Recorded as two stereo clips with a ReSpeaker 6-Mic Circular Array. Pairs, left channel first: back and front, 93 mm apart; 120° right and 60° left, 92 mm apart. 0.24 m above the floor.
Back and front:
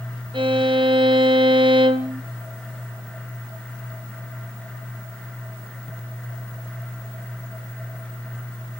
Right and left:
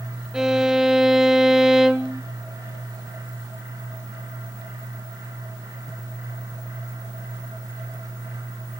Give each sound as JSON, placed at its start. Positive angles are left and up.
{"t": 0.3, "sound": "a violin", "azimuth_deg": -25, "distance_m": 0.7}